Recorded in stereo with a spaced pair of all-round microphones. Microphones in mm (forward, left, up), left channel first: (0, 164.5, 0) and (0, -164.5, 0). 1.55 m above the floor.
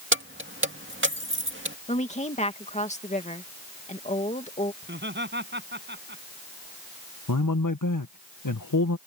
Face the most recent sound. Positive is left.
turn(degrees=65)  # may be behind; listen again after turning